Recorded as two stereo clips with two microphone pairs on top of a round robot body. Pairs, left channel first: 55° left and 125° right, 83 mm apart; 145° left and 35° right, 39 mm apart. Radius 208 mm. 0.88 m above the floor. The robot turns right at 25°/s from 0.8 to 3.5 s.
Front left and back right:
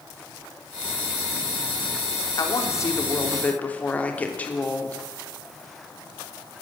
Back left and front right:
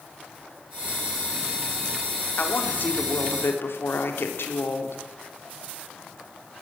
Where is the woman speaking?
100° left, 3.5 m; by 5.0 s 130° left, 3.5 m.